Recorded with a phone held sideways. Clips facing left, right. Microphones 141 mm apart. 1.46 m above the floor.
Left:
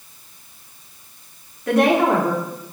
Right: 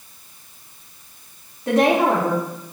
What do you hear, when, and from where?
1.7 s a woman speaking: 25° right (ahead or behind), 3 m